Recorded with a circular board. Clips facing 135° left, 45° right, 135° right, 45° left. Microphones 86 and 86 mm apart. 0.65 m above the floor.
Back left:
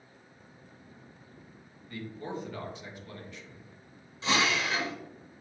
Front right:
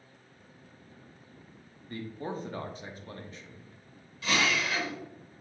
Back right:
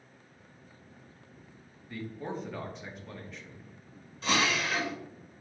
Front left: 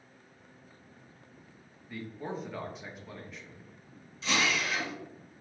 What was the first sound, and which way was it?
A man speaking, 45° right.